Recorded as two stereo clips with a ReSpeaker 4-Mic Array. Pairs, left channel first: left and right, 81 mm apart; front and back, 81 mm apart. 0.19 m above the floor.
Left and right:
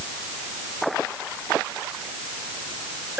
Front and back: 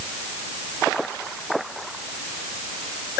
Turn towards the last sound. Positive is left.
No sound to turn to.